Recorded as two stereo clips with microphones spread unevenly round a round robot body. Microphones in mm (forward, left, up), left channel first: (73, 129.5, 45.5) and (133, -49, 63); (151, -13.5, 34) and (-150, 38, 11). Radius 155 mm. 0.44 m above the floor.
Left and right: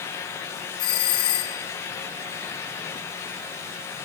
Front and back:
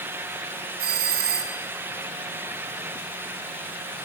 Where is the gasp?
No gasp in this recording.